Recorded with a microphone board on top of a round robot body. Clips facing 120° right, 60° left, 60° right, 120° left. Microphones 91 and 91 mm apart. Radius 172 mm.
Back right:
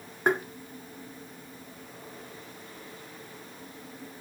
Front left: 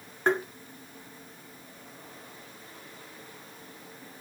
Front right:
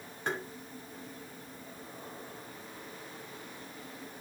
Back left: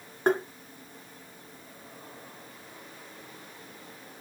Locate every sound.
0.3 s tapping: 160° left, 1.8 m